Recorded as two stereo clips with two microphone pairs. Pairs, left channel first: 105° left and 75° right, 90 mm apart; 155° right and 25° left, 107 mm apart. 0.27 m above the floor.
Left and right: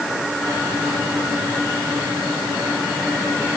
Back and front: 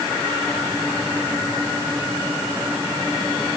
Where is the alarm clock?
No alarm clock in this recording.